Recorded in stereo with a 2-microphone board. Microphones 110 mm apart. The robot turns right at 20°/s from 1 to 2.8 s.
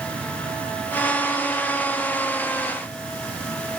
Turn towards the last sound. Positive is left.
No sound to turn to.